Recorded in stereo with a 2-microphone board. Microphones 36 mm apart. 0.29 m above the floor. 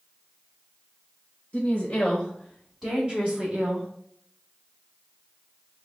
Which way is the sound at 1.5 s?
30° left (ahead or behind).